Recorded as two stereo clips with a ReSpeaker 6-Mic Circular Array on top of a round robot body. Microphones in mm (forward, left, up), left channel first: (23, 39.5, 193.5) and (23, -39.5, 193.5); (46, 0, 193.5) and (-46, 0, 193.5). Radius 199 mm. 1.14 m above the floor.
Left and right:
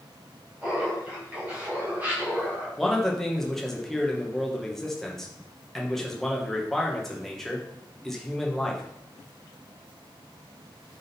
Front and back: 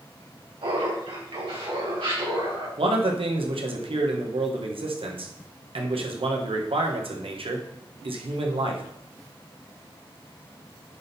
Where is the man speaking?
175° left, 1.4 m.